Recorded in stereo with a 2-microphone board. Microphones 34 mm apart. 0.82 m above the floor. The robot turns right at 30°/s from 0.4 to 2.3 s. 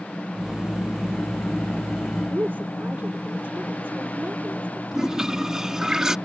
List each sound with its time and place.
2.3 s a woman speaking: 65° right (ahead or behind)
4.9 s a toilet flushing: 15° right (ahead or behind)